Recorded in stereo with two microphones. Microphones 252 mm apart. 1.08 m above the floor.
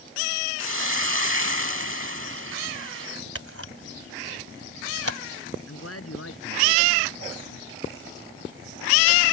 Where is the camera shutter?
60° right (ahead or behind).